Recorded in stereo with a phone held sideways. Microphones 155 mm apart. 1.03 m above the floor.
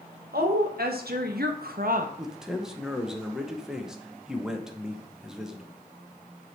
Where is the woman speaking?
75° right (ahead or behind), 1.3 m; by 2.1 s 60° right (ahead or behind), 0.7 m.